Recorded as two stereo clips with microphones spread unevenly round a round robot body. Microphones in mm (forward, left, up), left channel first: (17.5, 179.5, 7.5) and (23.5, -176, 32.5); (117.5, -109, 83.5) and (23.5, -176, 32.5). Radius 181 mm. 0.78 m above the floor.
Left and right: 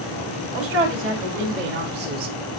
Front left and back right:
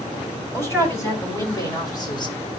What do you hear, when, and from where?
0.5 s a man speaking: 35° right, 5.5 m; by 2.4 s 20° right, 3 m